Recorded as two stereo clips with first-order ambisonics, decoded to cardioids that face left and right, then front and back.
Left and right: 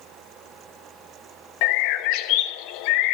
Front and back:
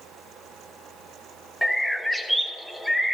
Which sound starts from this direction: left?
A bird, at 1.6 s.